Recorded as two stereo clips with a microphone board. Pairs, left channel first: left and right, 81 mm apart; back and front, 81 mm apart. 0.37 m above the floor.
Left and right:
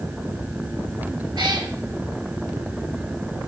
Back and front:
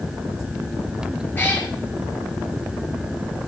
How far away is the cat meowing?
About 1.6 m.